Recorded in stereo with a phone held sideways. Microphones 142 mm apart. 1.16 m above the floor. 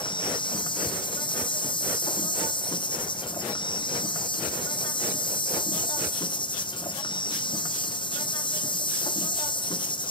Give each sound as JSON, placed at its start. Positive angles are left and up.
{"t": 0.0, "sound": "an insect", "side_deg": 35, "distance_m": 0.9}